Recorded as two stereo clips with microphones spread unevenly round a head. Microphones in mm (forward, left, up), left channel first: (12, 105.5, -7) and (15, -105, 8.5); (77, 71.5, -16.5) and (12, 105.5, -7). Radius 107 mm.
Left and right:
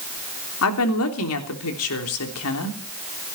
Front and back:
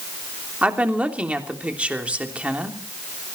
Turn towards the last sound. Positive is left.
turn(degrees=80)